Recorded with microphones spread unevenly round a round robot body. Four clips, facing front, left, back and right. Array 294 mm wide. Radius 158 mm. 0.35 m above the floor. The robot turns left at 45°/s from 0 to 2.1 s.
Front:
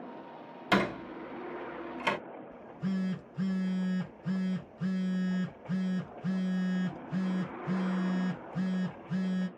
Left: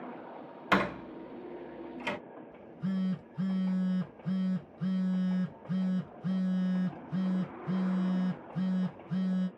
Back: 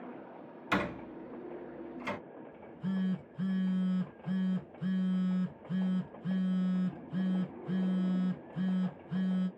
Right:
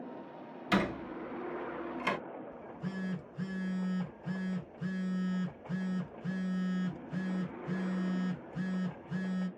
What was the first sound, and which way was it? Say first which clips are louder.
A door slam: left 2 dB, front 5 dB; 65° left.